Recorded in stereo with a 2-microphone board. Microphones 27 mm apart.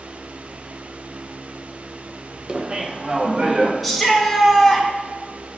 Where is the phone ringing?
No phone ringing in this recording.